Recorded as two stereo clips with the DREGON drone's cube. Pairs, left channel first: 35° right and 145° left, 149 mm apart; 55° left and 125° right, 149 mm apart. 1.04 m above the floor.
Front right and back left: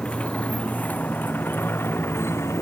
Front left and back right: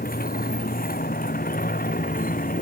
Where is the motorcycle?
50° left; by 2.6 s 35° left.